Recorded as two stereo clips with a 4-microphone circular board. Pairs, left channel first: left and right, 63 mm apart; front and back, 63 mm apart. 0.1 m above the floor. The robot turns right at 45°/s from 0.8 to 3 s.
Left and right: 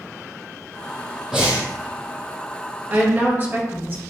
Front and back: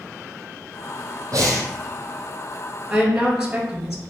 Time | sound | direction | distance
1.3 | breathing | 170° right | 1.2 m
2.9 | a woman speaking | 110° right | 1.5 m